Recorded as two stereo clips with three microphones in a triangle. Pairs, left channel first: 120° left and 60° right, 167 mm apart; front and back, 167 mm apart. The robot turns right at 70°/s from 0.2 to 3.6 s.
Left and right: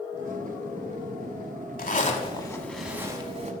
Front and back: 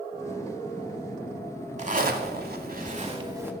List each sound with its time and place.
1.8 s a zipper: 140° left, 0.9 m; by 3.5 s 100° right, 0.9 m